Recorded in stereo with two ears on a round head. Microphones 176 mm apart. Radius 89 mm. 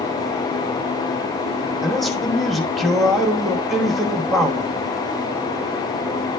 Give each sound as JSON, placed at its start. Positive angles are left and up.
{"t": 1.8, "sound": "a man speaking", "side_deg": 0, "distance_m": 1.2}